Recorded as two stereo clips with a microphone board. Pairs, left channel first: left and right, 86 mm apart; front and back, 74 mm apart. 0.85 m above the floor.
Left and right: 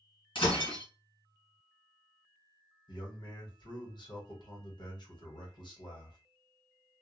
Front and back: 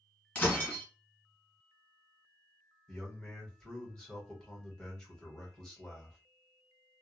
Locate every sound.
0.3 s breaking glass: 70° left, 1.3 m
2.9 s a man speaking: 80° left, 1.2 m